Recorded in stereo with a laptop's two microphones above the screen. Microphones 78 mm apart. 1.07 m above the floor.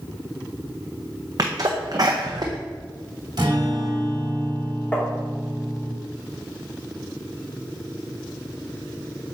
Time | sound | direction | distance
1.4 | a sneeze | 50° right (ahead or behind) | 0.5 m
3.4 | a guitar | 55° right (ahead or behind) | 1.6 m
4.9 | tapping | 20° left (ahead or behind) | 3 m